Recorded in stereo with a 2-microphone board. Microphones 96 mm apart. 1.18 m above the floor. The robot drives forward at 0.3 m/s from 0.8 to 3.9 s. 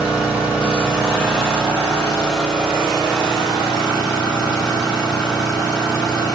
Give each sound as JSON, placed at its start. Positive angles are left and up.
{"t": 0.0, "sound": "an engine running", "side_deg": -10, "distance_m": 1.6}